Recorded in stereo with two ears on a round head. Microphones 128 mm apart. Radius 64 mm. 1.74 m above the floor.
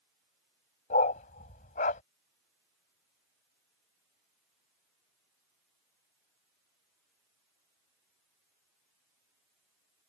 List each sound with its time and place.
0.9 s a dog barking: 60° left (ahead or behind)